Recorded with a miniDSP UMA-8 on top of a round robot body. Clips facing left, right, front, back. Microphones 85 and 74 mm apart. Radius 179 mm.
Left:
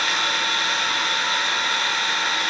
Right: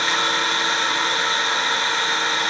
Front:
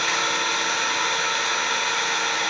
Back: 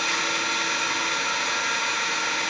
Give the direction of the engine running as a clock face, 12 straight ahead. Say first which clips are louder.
Right 3 dB, front 2 dB; 1 o'clock.